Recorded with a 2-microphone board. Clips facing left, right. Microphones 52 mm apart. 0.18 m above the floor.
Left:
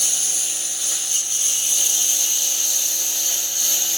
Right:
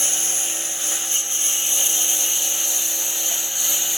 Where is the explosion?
I don't hear an explosion.